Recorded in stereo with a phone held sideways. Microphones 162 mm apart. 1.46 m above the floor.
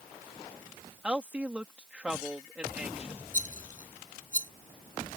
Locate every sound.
1.0 s a woman speaking: 10° right (ahead or behind)
3.3 s a rattle: 55° left (ahead or behind)